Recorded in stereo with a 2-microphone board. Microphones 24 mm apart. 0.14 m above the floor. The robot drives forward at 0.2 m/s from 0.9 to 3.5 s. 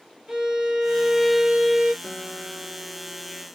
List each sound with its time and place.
0.3 s a violin: 25° right (ahead or behind), 0.7 m
2.0 s a guitar: 35° right (ahead or behind), 1.9 m